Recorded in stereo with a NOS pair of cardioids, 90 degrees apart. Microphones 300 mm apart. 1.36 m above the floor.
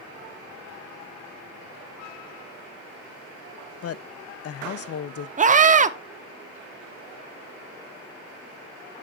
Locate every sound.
3.8 s a woman speaking: 50° left, 0.8 m
5.4 s a scream: 25° right, 1.1 m